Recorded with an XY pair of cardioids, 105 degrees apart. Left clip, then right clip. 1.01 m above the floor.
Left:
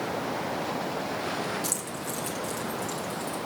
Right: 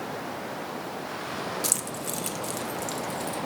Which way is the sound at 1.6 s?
40° right.